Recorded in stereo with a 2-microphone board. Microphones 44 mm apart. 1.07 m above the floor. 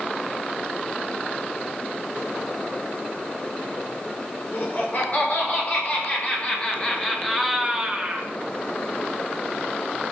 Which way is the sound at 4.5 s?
45° left (ahead or behind).